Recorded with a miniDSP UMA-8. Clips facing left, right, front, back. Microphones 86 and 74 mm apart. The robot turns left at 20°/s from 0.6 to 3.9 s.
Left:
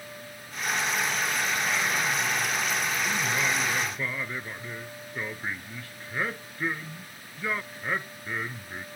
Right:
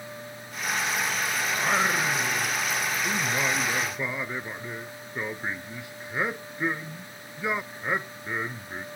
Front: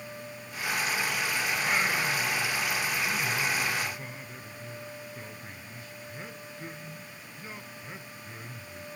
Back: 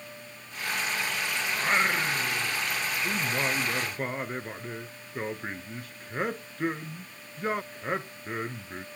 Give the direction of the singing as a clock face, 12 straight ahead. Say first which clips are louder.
Right 3 dB, back 4 dB; 4 o'clock.